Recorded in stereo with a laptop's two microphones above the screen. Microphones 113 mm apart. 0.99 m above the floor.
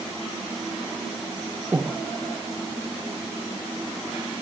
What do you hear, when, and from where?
1.7 s breathing: 20° right (ahead or behind), 0.8 m